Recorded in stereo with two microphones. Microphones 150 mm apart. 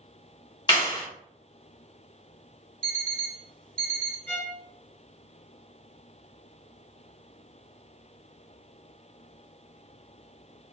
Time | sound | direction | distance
0.7 | a clap | 30° left (ahead or behind) | 1.9 m
2.8 | an alarm clock | 5° left (ahead or behind) | 0.8 m
4.3 | a violin | 15° left (ahead or behind) | 1.2 m